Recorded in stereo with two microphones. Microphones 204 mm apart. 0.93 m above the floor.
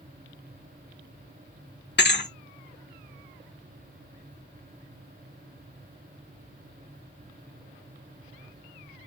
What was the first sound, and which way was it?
A thud, 60° left (ahead or behind).